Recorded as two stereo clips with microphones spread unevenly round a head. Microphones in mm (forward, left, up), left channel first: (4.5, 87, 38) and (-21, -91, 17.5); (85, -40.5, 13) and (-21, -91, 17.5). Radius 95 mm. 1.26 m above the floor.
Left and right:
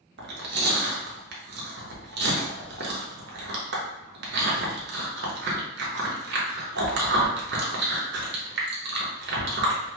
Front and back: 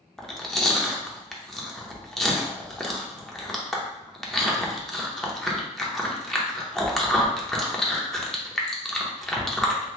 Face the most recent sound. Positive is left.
turn(degrees=-60)